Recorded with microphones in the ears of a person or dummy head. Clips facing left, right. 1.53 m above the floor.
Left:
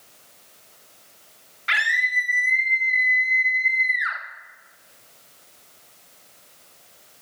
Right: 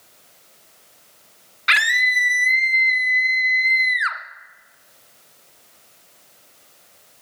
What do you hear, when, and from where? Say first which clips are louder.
1.7 s a scream: right 4 dB; 55° right (ahead or behind), 1.3 m